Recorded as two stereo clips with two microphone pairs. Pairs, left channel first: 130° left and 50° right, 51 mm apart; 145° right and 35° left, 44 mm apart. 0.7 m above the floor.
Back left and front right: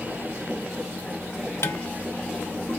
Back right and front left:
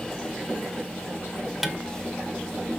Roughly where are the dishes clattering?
Behind left.